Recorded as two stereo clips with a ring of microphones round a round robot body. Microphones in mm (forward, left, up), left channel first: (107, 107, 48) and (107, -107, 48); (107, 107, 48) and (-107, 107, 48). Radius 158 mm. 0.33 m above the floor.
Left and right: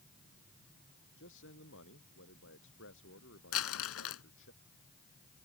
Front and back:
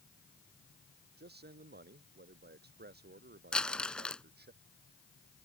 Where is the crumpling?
85° left.